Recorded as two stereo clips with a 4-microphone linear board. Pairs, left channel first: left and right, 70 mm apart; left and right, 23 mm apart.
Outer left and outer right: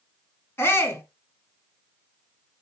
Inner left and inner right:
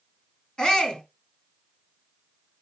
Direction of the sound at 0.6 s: 35° left (ahead or behind).